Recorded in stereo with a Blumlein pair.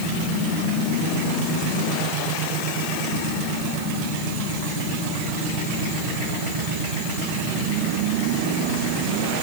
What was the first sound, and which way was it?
Only background noise.